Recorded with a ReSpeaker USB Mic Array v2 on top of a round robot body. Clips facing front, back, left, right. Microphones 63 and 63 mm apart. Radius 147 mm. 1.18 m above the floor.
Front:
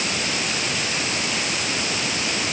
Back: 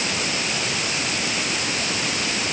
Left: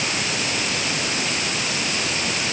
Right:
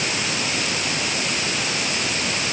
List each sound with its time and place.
Only background noise.